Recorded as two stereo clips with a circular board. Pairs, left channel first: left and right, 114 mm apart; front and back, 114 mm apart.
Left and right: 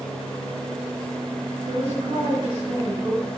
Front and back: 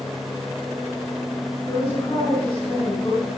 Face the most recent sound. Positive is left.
turn(degrees=-40)